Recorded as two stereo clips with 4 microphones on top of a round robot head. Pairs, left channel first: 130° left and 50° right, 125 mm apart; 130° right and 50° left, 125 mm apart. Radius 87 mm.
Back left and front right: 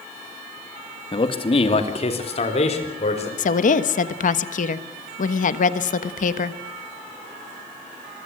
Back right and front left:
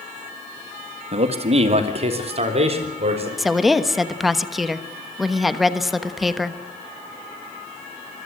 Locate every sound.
1.1 s a man speaking: 85° left, 1.8 m; by 3.3 s 90° left, 5 m
3.4 s a woman speaking: 140° left, 1.2 m